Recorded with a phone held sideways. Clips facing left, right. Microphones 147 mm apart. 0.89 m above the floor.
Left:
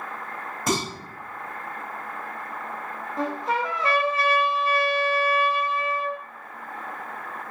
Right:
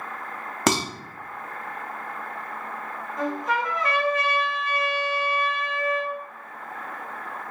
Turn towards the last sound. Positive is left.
turn(degrees=30)  # may be behind; listen again after turning